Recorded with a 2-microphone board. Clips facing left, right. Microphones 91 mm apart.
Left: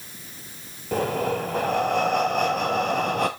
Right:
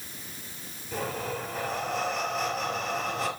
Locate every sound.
0.9 s breathing: 60° left (ahead or behind), 1.0 m